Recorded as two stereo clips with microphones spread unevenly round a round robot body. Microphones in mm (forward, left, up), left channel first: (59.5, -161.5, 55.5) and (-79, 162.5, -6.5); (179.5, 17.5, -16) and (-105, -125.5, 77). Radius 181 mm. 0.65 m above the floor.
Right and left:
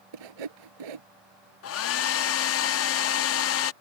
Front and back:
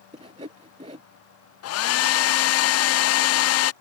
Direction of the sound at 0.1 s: 135° left.